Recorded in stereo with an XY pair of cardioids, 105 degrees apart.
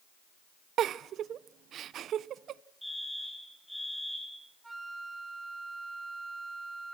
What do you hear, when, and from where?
0.8 s a giggle: 65° right, 0.6 m
2.8 s a fire alarm: straight ahead, 9 m
4.6 s a flute: 15° right, 1.5 m